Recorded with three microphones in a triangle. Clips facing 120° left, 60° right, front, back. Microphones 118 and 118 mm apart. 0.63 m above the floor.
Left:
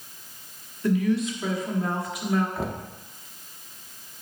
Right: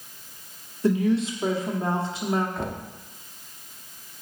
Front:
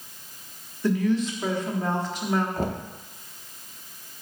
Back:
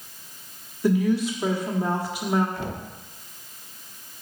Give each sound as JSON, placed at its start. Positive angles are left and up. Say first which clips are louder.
{"t": 0.8, "sound": "a woman speaking", "louder": "right 1 dB, back 2 dB", "azimuth_deg": -105, "distance_m": 1.5}
{"t": 2.6, "sound": "knocking", "louder": "left 1 dB, front 4 dB", "azimuth_deg": 35, "distance_m": 0.7}